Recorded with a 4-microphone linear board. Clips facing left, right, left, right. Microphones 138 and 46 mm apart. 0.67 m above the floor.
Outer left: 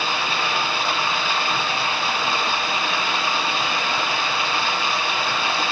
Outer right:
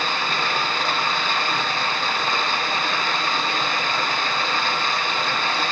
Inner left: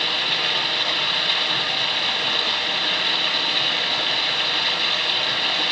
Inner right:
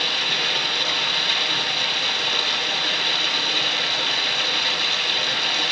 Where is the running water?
10° left (ahead or behind), 1.3 m.